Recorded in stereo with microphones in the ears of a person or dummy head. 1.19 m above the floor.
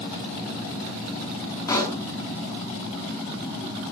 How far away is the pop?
About 6 m.